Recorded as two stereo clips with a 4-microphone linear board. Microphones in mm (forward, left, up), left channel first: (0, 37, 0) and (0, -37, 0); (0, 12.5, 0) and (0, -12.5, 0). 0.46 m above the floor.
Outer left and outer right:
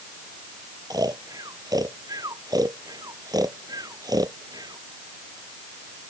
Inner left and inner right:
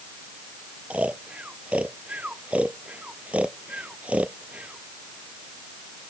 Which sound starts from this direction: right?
Snoring, at 0.9 s.